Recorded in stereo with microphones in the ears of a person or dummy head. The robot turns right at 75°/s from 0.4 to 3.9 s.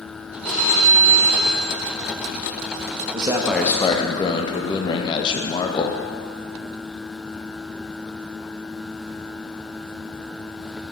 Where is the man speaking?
30° right, 0.6 m; by 6.0 s 25° left, 0.6 m.